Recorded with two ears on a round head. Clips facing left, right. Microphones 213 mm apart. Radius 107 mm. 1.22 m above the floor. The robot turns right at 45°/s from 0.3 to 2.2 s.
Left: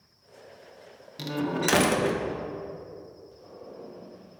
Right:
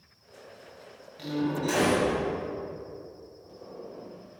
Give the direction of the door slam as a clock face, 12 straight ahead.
10 o'clock.